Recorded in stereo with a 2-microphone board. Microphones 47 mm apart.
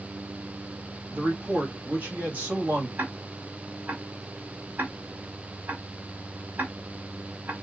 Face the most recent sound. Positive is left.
turn(degrees=-40)  # may be behind; listen again after turning